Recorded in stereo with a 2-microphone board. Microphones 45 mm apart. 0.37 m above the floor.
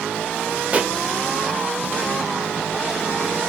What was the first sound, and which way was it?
A pop, 30° right (ahead or behind).